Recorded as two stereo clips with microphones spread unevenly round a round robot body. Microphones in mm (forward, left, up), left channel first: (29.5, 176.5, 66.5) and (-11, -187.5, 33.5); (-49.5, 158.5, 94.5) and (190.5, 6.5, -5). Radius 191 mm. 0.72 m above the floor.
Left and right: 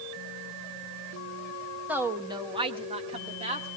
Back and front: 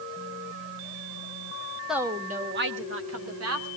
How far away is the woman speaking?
About 0.8 m.